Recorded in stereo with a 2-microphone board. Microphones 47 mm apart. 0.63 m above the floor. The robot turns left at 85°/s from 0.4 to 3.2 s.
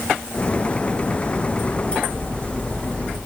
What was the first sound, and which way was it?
Only background noise.